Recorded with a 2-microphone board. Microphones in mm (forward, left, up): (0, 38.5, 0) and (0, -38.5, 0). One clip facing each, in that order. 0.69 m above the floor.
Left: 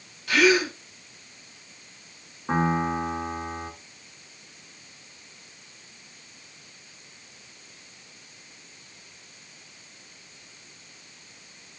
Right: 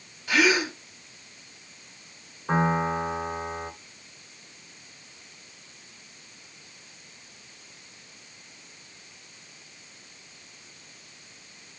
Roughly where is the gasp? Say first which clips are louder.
Left 2 dB; centre.